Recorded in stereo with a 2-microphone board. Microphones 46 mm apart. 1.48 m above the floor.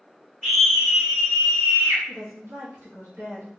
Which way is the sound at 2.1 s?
75° right (ahead or behind).